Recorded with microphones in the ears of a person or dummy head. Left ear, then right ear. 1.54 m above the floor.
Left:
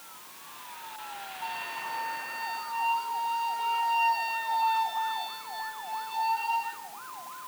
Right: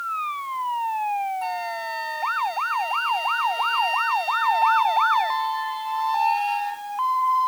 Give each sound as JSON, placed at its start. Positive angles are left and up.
{"t": 1.4, "sound": "a flute", "side_deg": -65, "distance_m": 0.8}